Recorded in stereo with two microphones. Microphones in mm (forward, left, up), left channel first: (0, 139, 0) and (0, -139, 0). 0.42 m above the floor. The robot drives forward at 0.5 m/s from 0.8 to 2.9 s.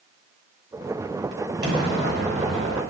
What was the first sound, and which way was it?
An explosion, 35° right (ahead or behind).